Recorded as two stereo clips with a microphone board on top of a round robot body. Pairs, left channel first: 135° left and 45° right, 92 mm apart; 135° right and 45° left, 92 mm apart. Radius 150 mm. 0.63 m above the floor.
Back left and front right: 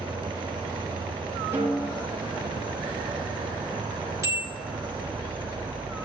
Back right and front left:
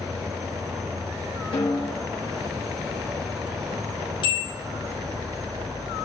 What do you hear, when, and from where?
0.0 s an insect: 10° right, 1.6 m
1.5 s a snare drum: 110° right, 4.5 m
4.2 s a bell: 105° right, 4 m